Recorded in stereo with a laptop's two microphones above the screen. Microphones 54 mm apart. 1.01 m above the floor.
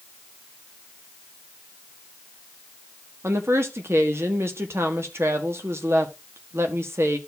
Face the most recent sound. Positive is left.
turn(degrees=-55)  # may be behind; listen again after turning